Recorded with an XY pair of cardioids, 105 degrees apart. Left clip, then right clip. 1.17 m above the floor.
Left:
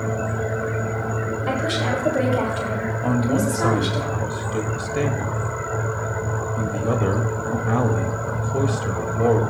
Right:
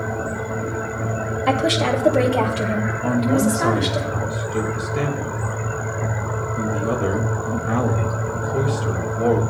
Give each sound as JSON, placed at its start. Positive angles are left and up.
{"t": 1.5, "sound": "a woman speaking", "azimuth_deg": -50, "distance_m": 2.0}
{"t": 3.0, "sound": "a man speaking", "azimuth_deg": 10, "distance_m": 2.0}